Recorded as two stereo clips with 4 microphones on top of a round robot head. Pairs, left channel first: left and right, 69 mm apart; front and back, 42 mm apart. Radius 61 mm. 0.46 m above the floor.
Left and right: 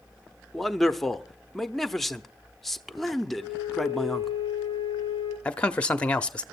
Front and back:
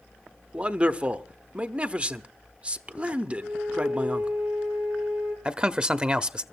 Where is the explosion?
No explosion in this recording.